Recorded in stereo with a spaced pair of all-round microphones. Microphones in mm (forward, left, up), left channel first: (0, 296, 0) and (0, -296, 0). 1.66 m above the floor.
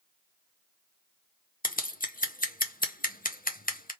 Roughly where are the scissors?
Centre.